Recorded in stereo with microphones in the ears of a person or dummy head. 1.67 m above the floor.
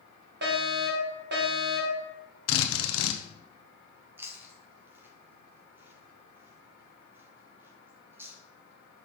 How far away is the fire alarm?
About 1.7 m.